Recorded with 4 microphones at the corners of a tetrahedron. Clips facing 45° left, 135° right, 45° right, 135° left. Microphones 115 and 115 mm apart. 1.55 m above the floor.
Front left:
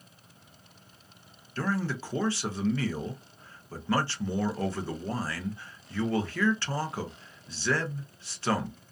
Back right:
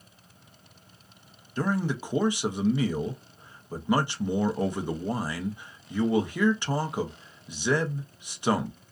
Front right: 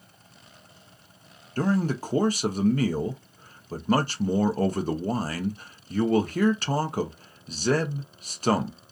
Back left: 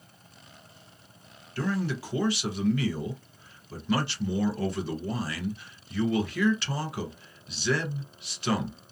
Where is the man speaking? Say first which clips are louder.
Back right 3 dB, front right 5 dB; 70° right, 0.5 m.